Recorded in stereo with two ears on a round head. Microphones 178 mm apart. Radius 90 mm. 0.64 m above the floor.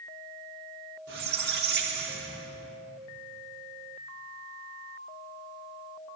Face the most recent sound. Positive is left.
turn(degrees=-55)  # may be behind; listen again after turning